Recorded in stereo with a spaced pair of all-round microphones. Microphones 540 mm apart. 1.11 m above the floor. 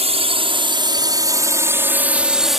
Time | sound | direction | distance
0.0 | a drone | 10° right (ahead or behind) | ?